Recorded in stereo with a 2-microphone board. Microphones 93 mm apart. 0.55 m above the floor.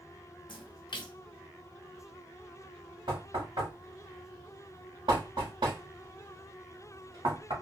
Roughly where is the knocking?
Right.